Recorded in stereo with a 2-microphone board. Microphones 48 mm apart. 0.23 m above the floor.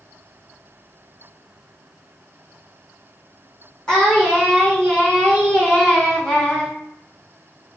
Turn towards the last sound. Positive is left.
turn(degrees=15)  # may be behind; listen again after turning